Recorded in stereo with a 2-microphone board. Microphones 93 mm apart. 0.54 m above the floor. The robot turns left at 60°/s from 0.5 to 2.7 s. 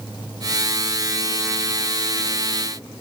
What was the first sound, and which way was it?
Only background noise.